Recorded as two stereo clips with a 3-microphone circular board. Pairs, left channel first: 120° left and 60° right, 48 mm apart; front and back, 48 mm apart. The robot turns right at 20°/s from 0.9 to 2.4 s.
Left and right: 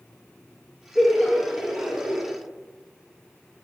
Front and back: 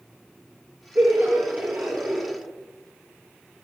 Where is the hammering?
I don't hear hammering.